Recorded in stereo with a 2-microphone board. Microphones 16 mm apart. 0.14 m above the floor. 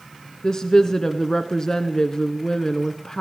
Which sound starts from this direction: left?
A woman speaking, at 0.4 s.